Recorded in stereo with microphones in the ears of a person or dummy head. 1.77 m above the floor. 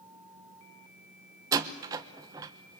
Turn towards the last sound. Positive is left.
turn(degrees=-25)  # may be behind; listen again after turning